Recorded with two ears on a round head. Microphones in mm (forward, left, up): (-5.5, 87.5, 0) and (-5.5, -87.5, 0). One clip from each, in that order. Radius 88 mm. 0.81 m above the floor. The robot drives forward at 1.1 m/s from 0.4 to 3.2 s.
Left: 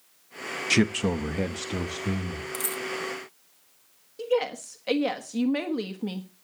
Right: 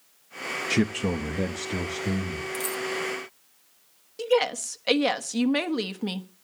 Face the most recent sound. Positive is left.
turn(degrees=-35)  # may be behind; listen again after turning